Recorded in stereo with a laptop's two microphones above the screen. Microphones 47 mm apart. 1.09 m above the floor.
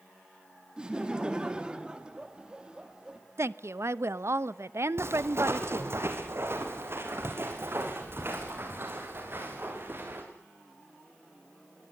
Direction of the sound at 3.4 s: 70° right (ahead or behind).